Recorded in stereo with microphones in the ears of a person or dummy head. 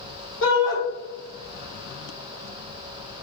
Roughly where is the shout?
Left.